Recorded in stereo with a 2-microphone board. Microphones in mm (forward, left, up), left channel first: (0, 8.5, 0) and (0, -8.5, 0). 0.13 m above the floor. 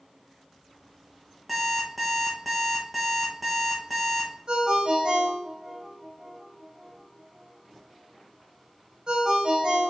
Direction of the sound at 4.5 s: 55° right (ahead or behind).